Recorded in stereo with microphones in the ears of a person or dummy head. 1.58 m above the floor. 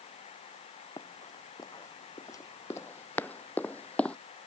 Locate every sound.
1.0 s running footsteps: 15° left (ahead or behind); by 4.2 s 5° left (ahead or behind)